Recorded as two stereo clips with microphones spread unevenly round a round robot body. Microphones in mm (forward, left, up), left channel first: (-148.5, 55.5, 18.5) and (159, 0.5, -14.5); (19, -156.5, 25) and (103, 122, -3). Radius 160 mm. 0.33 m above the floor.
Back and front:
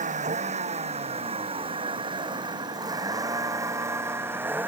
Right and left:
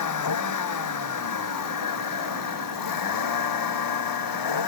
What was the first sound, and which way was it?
A vehicle, 80° right.